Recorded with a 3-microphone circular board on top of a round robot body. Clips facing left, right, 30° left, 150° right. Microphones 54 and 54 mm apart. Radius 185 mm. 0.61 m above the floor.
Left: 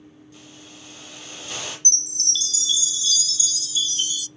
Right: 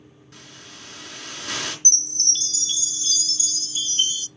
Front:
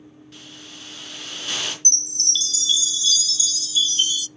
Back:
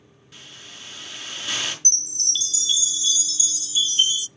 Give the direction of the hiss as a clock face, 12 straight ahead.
2 o'clock.